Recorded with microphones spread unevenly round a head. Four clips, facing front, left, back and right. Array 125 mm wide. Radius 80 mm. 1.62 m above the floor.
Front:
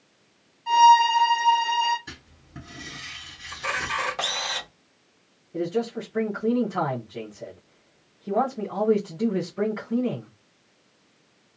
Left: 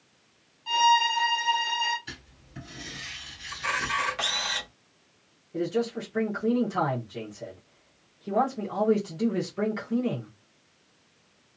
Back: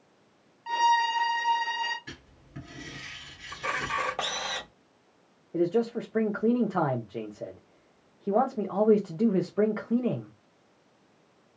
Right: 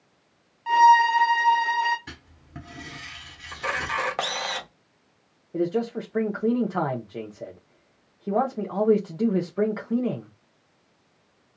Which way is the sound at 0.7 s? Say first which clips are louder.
Right 7 dB, front 9 dB; 70° right.